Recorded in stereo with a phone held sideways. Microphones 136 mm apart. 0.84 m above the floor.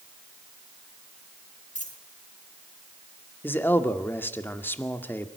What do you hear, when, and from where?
1.8 s a dropped coin: 60° left (ahead or behind), 4.5 m
3.4 s a man speaking: 15° left (ahead or behind), 1.9 m